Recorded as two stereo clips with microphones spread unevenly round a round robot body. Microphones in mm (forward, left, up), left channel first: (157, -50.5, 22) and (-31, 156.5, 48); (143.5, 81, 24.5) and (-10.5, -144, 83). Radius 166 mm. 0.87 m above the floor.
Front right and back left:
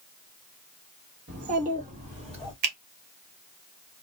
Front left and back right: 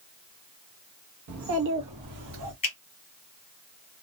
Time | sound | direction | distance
1.3 | a child speaking | 165° right | 0.7 m
2.6 | a finger snap | 115° left | 1.2 m